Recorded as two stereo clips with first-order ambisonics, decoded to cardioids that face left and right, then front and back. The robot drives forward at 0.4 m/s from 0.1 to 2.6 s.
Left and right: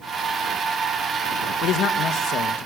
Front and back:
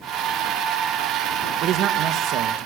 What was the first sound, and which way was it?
A man speaking, 130° left.